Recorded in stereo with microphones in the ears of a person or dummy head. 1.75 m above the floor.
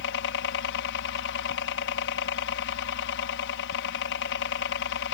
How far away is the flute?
I don't hear a flute.